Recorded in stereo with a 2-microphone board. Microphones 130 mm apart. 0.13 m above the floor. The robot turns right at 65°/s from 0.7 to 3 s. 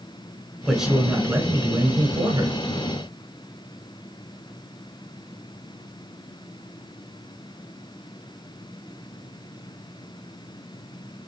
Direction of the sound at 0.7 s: Centre (ahead or behind).